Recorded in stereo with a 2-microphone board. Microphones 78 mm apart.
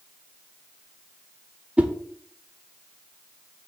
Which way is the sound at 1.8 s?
15° right (ahead or behind).